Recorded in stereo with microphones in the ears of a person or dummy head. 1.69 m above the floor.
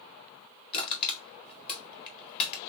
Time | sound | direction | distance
0.7 | crushing | 30° left (ahead or behind) | 1.7 m